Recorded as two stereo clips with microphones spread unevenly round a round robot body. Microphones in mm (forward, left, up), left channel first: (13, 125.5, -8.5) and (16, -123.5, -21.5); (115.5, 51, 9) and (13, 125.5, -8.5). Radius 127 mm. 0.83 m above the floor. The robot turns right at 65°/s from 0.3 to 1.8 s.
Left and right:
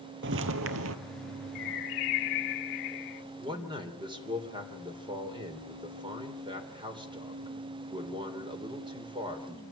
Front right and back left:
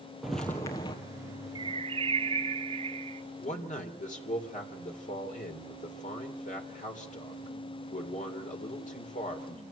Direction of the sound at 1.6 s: 85° left.